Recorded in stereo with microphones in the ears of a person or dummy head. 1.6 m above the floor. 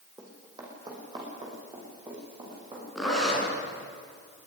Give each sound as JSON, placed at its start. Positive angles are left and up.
{"t": 0.2, "sound": "running footsteps", "side_deg": -20, "distance_m": 5.5}
{"t": 3.0, "sound": "a zipper", "side_deg": 0, "distance_m": 7.5}